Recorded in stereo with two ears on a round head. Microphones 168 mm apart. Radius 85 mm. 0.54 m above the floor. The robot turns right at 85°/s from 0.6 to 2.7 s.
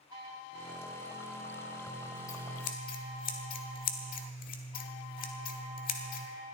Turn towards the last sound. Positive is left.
turn(degrees=45)  # may be behind; listen again after turning